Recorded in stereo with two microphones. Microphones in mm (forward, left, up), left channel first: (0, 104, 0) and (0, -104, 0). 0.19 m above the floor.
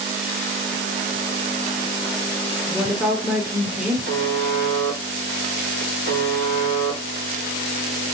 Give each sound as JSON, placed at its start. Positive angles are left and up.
{"t": 2.7, "sound": "a woman speaking", "side_deg": -5, "distance_m": 2.5}
{"t": 4.1, "sound": "a buzzer", "side_deg": -55, "distance_m": 2.0}